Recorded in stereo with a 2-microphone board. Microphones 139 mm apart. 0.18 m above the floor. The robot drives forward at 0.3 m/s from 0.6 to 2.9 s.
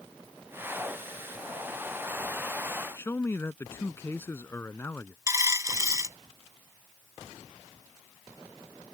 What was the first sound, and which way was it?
A man speaking, 20° left (ahead or behind).